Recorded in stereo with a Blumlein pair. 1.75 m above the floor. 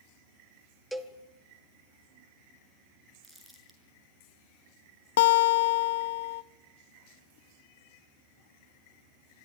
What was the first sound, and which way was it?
A cowbell, straight ahead.